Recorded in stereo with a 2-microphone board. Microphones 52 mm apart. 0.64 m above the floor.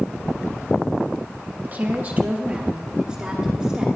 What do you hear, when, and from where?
1.6 s a woman speaking: 35° right (ahead or behind), 1.2 m; by 3.9 s 10° right (ahead or behind), 2 m